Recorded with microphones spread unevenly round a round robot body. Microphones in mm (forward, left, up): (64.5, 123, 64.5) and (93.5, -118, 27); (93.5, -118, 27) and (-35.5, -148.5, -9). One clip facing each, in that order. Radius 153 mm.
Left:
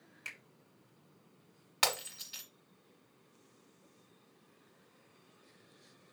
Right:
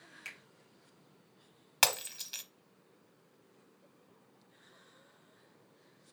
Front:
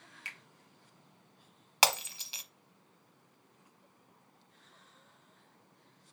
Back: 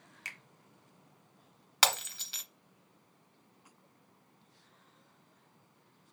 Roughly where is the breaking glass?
Ahead right.